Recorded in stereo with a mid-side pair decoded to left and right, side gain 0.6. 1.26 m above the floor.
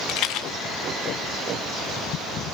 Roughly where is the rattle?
Left.